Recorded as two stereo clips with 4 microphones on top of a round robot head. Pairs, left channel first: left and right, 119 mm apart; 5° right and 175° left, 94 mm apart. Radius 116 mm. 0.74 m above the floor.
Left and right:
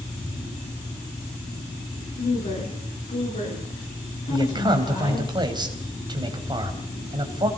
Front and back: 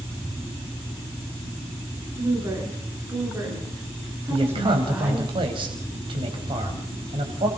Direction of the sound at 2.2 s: 125° left.